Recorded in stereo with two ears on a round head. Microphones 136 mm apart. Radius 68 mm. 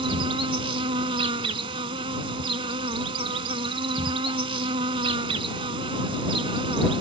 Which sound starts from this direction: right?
An insect, at 0.0 s.